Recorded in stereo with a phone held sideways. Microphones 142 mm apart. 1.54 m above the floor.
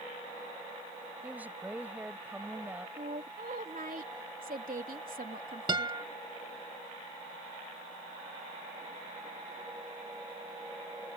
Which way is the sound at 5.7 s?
35° right (ahead or behind).